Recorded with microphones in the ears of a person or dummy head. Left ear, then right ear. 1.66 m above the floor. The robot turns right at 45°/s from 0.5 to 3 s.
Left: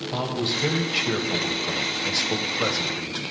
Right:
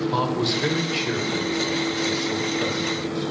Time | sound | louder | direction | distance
0.1 | a man speaking | right 1 dB | 5° right | 1.2 m